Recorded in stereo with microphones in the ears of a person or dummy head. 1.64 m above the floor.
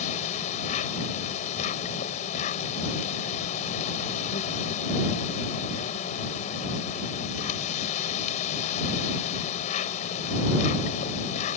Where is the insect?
40° left (ahead or behind).